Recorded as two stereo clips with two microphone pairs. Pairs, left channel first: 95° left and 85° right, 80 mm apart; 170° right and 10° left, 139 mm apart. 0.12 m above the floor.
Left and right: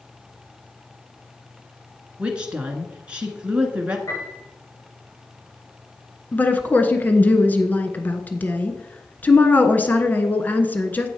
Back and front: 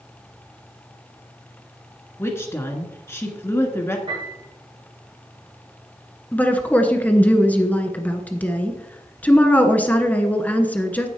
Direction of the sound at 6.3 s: 125° left.